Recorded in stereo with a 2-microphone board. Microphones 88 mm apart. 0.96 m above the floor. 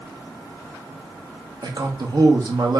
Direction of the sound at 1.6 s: 55° right (ahead or behind).